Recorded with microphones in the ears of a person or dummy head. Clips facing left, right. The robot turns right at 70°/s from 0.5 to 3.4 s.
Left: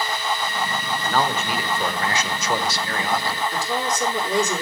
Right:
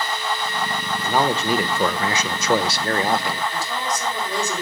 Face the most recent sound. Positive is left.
turn(degrees=60)  # may be behind; listen again after turning